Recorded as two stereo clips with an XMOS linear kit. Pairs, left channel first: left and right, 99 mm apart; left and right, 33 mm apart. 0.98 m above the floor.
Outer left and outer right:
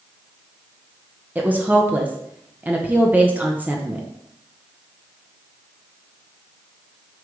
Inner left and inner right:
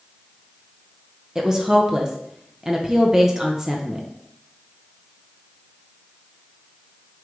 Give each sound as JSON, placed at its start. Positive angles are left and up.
{"t": 1.4, "sound": "a woman speaking", "side_deg": -15, "distance_m": 0.9}